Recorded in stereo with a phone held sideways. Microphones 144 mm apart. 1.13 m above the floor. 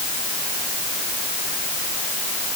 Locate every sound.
Only background noise.